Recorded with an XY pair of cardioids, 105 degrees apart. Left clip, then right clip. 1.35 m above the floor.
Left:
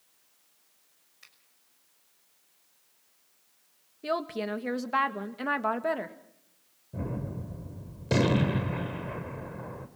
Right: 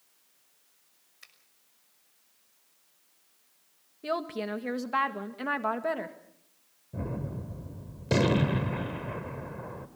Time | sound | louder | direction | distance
1.2 | a finger snap | right 2 dB | 20° right | 6 m
4.0 | a woman speaking | left 1 dB | 10° left | 1.8 m
6.9 | a gunshot | even | 5° right | 2.5 m